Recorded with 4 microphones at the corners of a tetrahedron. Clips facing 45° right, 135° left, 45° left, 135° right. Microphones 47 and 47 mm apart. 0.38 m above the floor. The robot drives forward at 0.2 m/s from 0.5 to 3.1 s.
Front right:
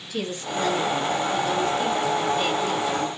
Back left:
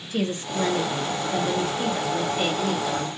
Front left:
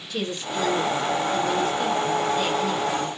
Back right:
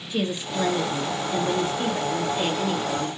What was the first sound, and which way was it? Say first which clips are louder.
A woman speaking: back left 2 dB, back right 1 dB; 165° left.